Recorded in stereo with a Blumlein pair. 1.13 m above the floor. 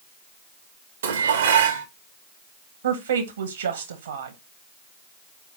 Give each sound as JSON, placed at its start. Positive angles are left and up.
{"t": 1.0, "sound": "dishes clattering", "azimuth_deg": -65, "distance_m": 0.9}
{"t": 2.8, "sound": "a woman speaking", "azimuth_deg": -65, "distance_m": 1.3}